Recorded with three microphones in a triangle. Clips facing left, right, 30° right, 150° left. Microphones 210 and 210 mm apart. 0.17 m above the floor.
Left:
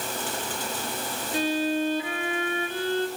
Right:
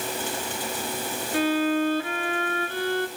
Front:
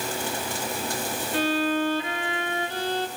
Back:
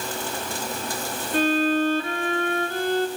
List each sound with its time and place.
1.3 s a violin: 160° left, 2.5 m